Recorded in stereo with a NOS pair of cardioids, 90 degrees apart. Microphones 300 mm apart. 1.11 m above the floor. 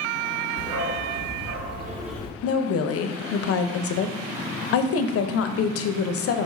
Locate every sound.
0.6 s a dog barking: 70° right, 1.9 m; by 2.3 s 70° left, 0.5 m
2.4 s a woman speaking: 50° left, 0.5 m